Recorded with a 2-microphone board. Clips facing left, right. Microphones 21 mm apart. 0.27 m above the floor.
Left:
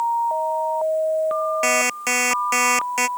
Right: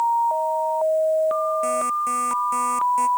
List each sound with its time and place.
1.6 s an alarm clock: 85° left